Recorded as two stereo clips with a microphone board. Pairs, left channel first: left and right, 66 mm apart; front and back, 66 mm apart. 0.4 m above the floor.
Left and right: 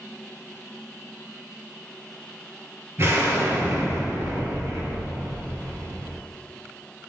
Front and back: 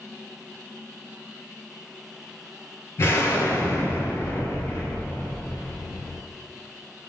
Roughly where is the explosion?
Ahead right.